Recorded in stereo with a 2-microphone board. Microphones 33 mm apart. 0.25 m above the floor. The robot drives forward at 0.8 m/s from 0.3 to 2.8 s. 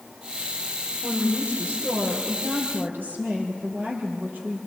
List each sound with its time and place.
1.0 s a woman speaking: 65° right (ahead or behind), 8.5 m; by 4.6 s 70° right (ahead or behind), 8 m